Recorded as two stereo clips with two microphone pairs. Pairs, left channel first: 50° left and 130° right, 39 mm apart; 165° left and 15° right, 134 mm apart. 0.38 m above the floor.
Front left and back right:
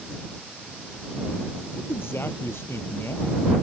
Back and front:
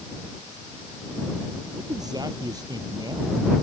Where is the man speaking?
50° left.